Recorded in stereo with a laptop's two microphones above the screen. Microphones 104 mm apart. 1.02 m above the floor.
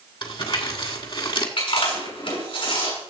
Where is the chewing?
65° left (ahead or behind), 6.5 m.